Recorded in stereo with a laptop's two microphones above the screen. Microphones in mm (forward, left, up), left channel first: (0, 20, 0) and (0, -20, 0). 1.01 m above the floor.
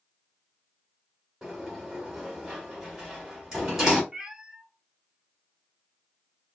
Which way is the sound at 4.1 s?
20° right (ahead or behind).